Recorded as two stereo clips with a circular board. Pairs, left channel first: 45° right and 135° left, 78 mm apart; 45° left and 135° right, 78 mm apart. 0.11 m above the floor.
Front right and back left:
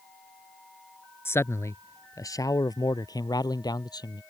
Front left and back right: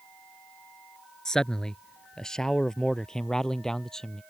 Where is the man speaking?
30° right; by 4.2 s 35° right.